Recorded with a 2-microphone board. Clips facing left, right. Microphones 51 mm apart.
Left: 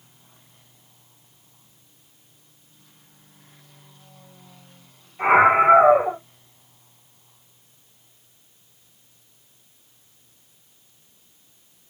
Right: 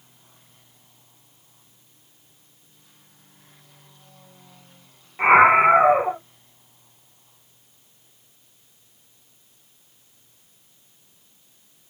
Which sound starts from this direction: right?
A scream, at 5.2 s.